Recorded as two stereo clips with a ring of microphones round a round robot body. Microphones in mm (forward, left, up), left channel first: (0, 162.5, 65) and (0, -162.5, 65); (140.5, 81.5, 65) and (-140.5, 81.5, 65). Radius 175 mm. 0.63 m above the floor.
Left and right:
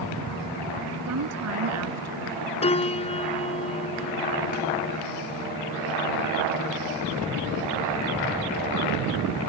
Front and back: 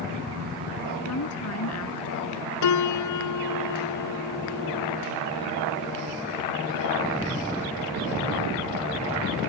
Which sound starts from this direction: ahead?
A piano, at 2.6 s.